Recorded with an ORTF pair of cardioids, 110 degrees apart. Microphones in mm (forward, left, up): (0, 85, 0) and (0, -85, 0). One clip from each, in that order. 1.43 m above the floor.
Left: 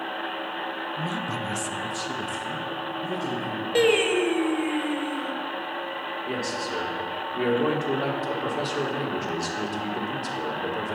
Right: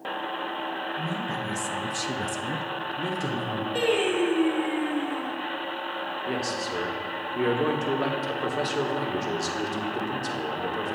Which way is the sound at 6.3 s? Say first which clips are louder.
Even; 10° right.